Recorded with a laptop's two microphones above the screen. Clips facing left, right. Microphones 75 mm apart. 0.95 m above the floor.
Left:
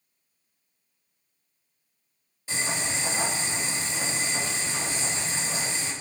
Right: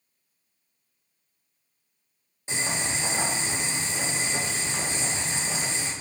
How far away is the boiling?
About 1.0 m.